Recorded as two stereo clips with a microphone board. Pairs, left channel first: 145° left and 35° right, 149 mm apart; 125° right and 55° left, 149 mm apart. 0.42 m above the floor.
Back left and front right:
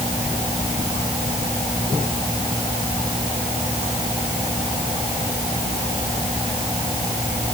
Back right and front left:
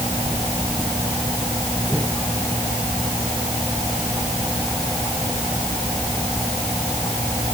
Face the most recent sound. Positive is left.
No sound to turn to.